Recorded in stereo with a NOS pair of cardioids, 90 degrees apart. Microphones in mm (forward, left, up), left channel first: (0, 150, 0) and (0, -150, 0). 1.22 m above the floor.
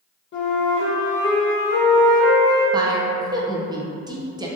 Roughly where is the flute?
Ahead left.